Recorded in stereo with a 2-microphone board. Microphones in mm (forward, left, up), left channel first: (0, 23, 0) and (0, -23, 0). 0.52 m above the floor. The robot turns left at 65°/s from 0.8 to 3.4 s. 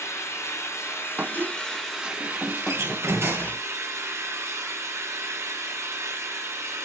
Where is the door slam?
85° right, 5 m; by 3.6 s 130° right, 5 m.